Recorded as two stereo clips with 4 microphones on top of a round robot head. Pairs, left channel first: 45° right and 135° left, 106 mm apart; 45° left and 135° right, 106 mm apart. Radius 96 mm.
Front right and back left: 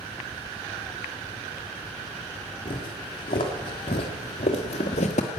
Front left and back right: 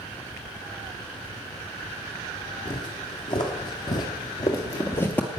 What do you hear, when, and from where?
2.6 s footsteps: straight ahead, 3 m; by 5.4 s 35° right, 1.2 m